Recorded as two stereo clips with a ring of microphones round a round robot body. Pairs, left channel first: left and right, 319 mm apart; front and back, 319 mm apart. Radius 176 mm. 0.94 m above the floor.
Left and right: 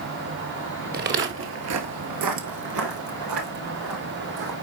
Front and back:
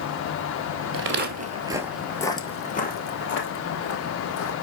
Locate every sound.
0.9 s footsteps: 140° right, 1.4 m; by 4.5 s 40° right, 3 m